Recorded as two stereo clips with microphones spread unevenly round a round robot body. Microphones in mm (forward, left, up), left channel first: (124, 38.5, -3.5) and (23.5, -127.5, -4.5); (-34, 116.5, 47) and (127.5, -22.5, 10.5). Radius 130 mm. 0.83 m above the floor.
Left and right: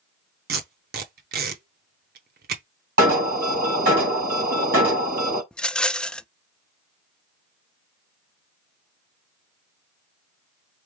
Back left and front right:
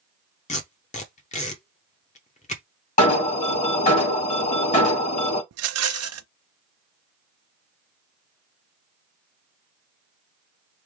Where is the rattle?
25° right, 0.5 m.